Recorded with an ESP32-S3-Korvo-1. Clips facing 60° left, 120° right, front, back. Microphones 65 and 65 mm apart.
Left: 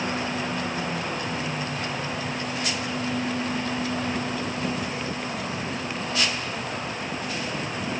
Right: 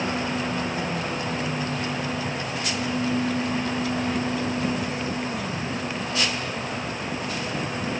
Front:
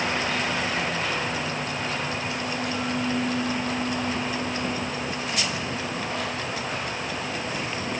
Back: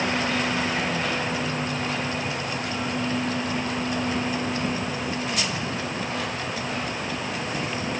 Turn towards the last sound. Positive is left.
No sound to turn to.